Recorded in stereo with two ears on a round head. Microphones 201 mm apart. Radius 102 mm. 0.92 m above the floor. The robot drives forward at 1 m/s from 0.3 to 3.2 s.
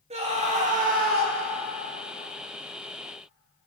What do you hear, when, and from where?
0.1 s a scream: 30° right (ahead or behind), 1.7 m; by 1.4 s 45° right (ahead or behind), 1.1 m